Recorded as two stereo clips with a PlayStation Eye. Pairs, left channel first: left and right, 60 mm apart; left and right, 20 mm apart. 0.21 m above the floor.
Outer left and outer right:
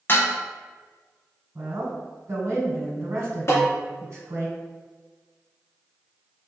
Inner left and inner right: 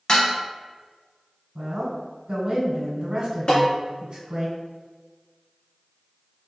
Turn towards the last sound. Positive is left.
turn(degrees=50)  # may be behind; listen again after turning